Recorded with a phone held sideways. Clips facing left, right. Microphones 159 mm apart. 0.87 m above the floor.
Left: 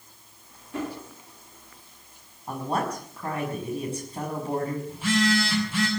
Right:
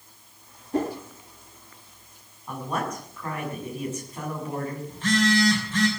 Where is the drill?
No drill in this recording.